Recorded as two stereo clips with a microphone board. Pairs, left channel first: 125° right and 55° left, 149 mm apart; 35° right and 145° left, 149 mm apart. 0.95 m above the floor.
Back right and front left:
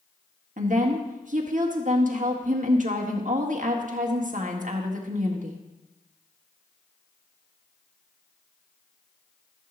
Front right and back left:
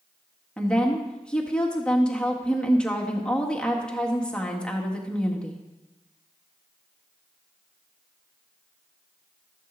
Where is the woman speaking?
50° left, 1.6 m.